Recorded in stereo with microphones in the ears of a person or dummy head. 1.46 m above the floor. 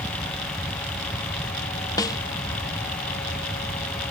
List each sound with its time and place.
2.0 s a snare drum: 25° left (ahead or behind)